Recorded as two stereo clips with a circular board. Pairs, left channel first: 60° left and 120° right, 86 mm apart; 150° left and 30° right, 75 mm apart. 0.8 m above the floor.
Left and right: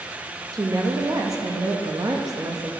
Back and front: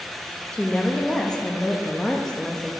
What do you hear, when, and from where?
0.5 s a woman speaking: 135° right, 0.7 m